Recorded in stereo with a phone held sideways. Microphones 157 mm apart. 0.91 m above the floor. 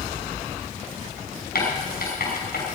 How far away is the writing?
About 6 m.